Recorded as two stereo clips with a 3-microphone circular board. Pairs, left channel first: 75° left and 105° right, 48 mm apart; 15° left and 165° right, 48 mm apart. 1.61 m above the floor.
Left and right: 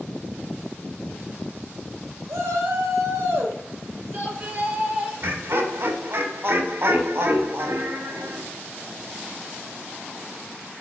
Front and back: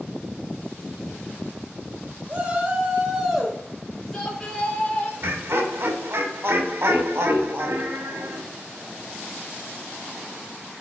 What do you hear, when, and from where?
2.3 s a shout: 110° right, 1.8 m; by 5.1 s 50° right, 2.5 m
5.2 s laughter: 135° right, 1.2 m